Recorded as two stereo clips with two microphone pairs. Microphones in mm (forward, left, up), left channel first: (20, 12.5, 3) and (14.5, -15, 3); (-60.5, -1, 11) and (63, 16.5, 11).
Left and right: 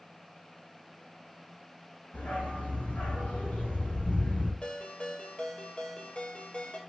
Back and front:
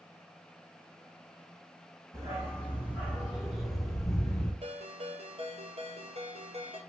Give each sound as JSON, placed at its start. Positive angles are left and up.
{"t": 2.1, "sound": "a dog barking", "azimuth_deg": 75, "distance_m": 3.0}
{"t": 4.6, "sound": "a ringtone", "azimuth_deg": 35, "distance_m": 1.8}